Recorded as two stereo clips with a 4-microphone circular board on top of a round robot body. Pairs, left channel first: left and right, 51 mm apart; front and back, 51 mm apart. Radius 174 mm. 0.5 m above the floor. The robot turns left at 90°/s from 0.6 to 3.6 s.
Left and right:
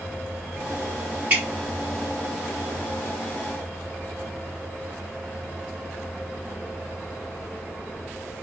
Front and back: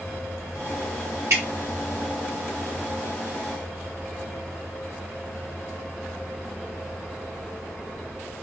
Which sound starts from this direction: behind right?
Dripping, at 1.3 s.